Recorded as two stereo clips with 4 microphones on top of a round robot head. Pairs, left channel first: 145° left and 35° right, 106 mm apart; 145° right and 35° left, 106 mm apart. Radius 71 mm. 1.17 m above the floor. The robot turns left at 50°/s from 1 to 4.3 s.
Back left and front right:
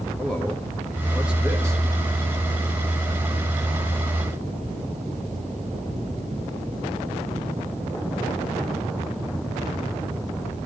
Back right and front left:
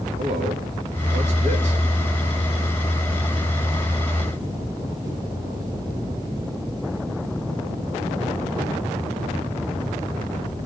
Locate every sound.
0.2 s a man speaking: 60° left, 1.7 m; by 1.8 s 20° left, 1.7 m